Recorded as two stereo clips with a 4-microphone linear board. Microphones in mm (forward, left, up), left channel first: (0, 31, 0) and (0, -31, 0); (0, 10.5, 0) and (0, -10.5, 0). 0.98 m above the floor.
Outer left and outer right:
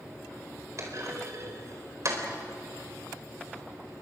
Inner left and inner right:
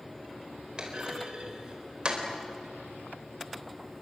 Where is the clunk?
55° right (ahead or behind), 4 m.